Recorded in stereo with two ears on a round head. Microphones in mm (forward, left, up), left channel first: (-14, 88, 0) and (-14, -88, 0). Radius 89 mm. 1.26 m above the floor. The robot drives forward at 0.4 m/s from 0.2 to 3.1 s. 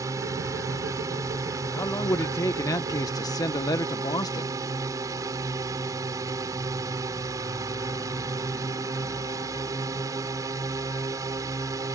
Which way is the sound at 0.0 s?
15° right (ahead or behind).